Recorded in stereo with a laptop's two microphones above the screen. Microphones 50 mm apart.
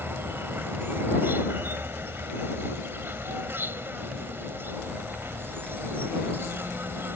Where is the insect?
50° right (ahead or behind).